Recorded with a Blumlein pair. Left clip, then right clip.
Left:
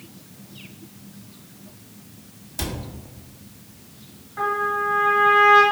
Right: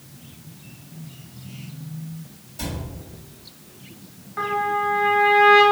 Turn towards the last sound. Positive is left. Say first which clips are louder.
# even
turn(degrees=-15)